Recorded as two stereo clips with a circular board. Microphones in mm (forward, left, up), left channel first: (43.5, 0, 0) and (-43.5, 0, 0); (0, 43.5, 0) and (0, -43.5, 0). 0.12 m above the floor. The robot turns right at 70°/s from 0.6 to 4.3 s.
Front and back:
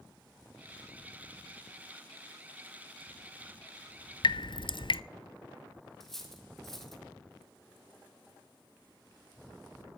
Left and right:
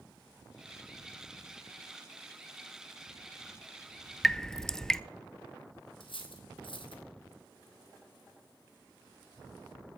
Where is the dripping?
Straight ahead, 0.6 m; by 5.0 s 5° left, 0.6 m.